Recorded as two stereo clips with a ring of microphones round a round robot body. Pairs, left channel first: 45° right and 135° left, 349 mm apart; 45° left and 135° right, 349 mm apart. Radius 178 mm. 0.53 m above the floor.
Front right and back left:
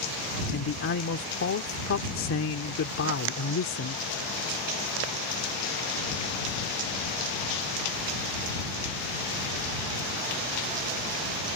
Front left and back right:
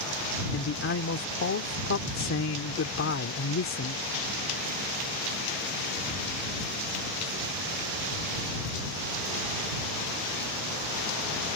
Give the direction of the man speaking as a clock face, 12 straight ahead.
12 o'clock.